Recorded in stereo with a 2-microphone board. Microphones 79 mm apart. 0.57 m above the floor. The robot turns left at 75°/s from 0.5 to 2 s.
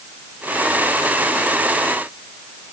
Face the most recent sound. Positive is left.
No sound to turn to.